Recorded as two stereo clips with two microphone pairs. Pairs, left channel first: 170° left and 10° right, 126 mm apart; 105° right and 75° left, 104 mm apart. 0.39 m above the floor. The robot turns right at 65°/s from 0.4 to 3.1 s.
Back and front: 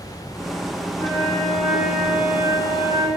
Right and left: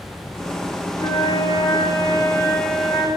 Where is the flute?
140° right, 1.0 m; by 3.1 s straight ahead, 1.0 m.